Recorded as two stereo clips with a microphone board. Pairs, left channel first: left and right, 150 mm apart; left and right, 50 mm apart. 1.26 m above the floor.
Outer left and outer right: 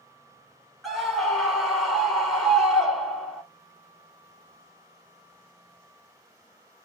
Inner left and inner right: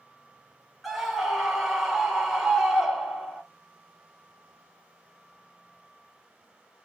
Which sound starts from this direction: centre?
A scream, at 0.8 s.